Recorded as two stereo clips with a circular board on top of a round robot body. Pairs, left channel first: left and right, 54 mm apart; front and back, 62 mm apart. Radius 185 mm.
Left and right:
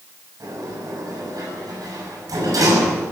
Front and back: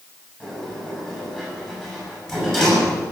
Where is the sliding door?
80° right, 7.5 m.